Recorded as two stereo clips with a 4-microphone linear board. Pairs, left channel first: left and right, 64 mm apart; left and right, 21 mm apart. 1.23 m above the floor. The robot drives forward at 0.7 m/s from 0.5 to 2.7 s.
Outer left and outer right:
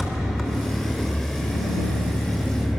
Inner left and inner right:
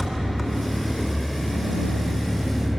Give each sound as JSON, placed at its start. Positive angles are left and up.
{"t": 0.0, "sound": "an engine running", "side_deg": -5, "distance_m": 2.5}